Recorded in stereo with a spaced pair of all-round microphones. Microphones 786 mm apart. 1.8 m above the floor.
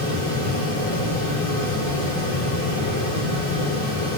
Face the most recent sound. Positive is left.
turn(degrees=15)  # may be behind; listen again after turning